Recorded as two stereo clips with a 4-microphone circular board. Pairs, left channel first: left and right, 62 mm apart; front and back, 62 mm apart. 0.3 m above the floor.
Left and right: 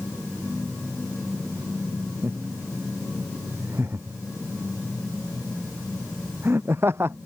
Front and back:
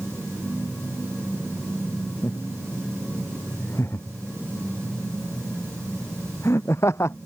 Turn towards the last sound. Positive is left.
turn(degrees=-40)